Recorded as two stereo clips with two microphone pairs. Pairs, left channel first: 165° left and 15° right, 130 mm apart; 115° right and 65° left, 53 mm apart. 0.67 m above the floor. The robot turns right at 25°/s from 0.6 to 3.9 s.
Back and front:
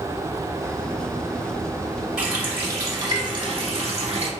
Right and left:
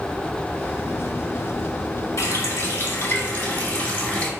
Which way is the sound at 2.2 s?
95° right.